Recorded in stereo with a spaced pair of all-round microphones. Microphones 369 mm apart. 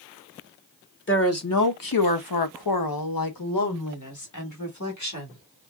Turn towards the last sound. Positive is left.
turn(degrees=45)  # may be behind; listen again after turning